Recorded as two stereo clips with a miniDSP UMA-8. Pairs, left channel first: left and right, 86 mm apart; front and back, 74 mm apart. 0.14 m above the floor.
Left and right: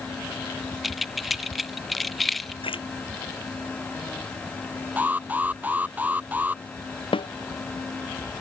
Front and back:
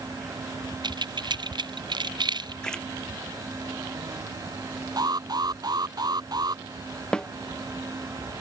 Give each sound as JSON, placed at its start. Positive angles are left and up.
{"t": 0.8, "sound": "keys jangling", "azimuth_deg": 180}
{"t": 2.6, "sound": "a splash", "azimuth_deg": 80}
{"t": 5.0, "sound": "an alarm", "azimuth_deg": -160}
{"t": 7.1, "sound": "a snare drum", "azimuth_deg": 80}